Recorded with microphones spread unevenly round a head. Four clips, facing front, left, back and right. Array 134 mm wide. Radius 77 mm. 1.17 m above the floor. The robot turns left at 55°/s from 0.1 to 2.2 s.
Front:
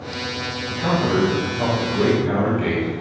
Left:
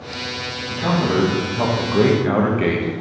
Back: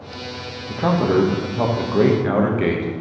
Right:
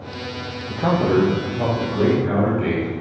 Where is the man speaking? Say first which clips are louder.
Right 2 dB, back 3 dB; 150° right, 1.6 m; by 2.9 s 130° left, 1.6 m.